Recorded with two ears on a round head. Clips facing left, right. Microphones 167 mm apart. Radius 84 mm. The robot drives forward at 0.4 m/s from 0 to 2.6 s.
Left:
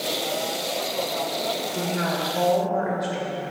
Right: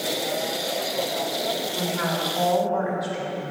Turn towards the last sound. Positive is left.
turn(degrees=35)  # may be behind; listen again after turning